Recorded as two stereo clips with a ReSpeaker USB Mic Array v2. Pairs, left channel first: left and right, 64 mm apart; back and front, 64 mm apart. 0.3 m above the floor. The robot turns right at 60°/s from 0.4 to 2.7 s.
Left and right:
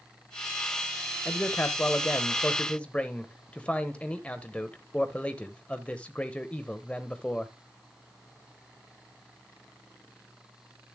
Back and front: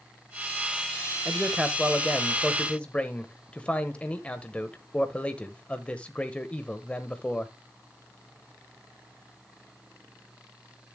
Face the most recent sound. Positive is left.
turn(degrees=130)